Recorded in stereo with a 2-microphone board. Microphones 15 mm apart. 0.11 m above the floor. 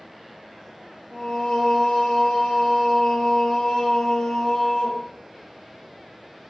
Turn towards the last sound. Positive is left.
turn(degrees=60)  # may be behind; listen again after turning